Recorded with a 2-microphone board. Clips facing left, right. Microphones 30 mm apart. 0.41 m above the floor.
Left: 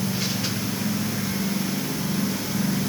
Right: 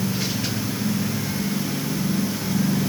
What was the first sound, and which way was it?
Only background noise.